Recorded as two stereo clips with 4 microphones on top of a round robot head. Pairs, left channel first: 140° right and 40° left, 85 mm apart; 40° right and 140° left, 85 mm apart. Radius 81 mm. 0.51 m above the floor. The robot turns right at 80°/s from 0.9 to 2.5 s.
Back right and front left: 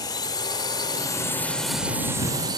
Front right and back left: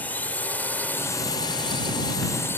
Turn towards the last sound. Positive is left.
turn(degrees=15)